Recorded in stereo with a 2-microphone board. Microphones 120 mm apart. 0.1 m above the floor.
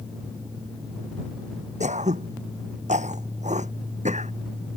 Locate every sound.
1.8 s throat clearing: 80° right